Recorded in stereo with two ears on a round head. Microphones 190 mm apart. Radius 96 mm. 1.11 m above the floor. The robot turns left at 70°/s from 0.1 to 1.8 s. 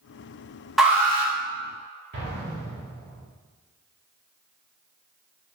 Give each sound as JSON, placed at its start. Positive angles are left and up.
{"t": 0.8, "sound": "an alarm", "azimuth_deg": 0, "distance_m": 1.9}
{"t": 2.1, "sound": "an explosion", "side_deg": -55, "distance_m": 2.5}